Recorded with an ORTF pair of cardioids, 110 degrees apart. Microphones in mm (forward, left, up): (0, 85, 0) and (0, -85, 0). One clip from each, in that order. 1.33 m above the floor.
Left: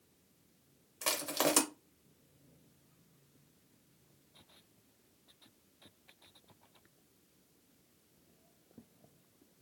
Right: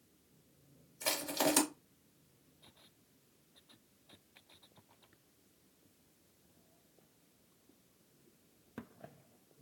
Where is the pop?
I don't hear a pop.